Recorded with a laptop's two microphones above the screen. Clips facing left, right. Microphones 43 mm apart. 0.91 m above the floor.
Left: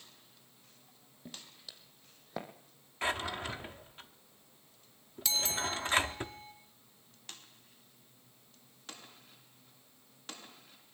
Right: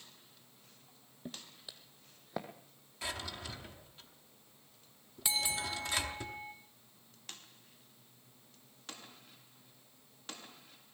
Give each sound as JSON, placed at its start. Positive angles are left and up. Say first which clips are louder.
{"t": 1.2, "sound": "footsteps", "louder": "right 2 dB", "side_deg": -25, "distance_m": 1.3}
{"t": 3.0, "sound": "a drawer", "louder": "left 7 dB", "side_deg": 40, "distance_m": 0.8}
{"t": 5.2, "sound": "a bell", "louder": "left 1 dB", "side_deg": -15, "distance_m": 0.8}